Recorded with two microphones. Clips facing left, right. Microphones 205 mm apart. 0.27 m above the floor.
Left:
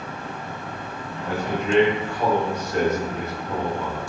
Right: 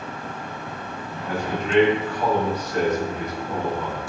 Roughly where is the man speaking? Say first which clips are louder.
Left 2 dB; left.